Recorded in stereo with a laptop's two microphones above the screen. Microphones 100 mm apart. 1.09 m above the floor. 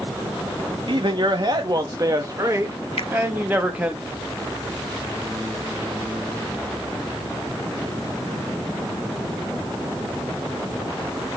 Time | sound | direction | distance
0.9 | a man speaking | 55° right (ahead or behind) | 2 m
3.0 | a finger snap | 80° left | 0.8 m